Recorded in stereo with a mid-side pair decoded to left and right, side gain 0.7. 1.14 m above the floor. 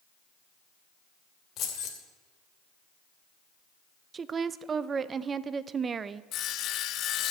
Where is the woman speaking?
30° right, 0.5 m.